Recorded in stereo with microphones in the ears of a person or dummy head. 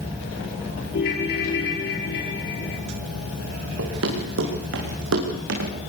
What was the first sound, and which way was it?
A ringtone, 55° left (ahead or behind).